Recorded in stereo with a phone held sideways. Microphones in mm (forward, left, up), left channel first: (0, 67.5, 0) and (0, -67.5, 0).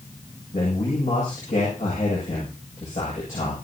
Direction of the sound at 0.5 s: 70° left (ahead or behind).